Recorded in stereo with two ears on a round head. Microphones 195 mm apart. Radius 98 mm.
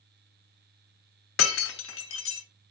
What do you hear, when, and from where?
1.4 s breaking glass: 60° left (ahead or behind), 1.2 m